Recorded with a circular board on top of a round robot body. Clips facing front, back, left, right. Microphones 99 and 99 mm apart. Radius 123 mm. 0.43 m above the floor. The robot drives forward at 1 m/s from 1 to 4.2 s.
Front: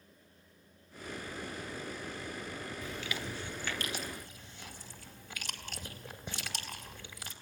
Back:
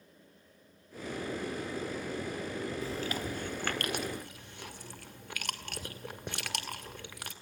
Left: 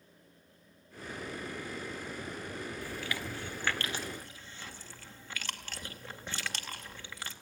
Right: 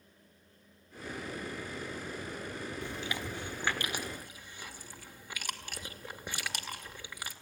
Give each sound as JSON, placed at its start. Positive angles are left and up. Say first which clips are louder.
{"t": 2.8, "sound": "chewing", "louder": "back 5 dB, even", "azimuth_deg": -145, "distance_m": 1.5}